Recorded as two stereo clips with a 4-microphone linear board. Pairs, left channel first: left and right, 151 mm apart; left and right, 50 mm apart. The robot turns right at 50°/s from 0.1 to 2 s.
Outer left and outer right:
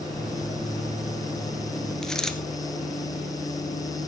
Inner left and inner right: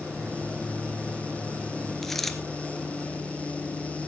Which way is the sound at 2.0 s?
5° left (ahead or behind).